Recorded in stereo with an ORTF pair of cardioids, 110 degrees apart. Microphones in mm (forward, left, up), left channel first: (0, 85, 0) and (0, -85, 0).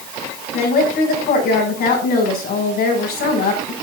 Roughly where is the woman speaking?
Ahead left.